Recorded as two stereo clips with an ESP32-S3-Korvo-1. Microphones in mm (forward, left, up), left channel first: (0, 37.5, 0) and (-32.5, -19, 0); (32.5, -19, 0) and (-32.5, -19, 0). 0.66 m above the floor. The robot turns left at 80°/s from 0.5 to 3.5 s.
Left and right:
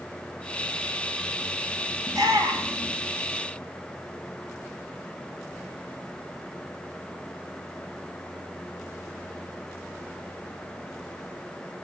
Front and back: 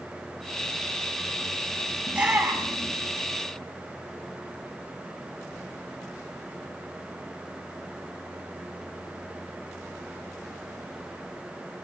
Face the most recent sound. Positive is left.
turn(degrees=140)